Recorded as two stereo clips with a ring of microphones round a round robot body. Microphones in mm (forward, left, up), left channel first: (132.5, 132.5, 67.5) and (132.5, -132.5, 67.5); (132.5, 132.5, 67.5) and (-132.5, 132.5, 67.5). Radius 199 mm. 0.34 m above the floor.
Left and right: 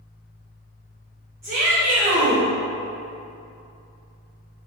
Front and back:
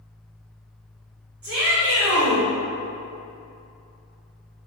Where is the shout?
140° right, 1.9 m.